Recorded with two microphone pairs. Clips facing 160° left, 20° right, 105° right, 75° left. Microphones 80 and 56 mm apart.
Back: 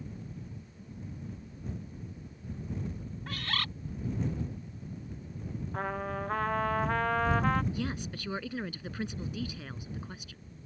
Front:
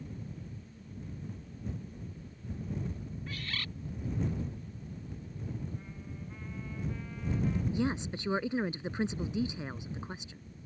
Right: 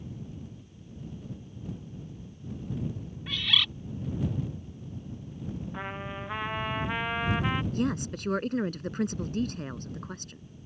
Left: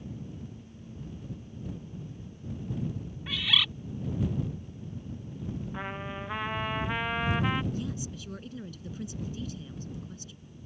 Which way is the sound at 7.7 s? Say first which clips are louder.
Front 4 dB, right 7 dB; 85° right.